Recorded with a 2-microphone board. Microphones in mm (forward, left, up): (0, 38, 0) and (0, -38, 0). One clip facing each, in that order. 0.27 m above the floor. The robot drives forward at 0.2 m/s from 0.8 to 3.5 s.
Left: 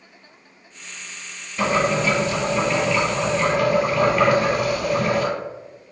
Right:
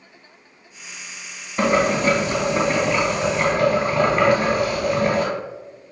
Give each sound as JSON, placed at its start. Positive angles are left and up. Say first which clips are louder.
{"t": 1.6, "sound": "boiling", "louder": "right 2 dB", "side_deg": -40, "distance_m": 2.0}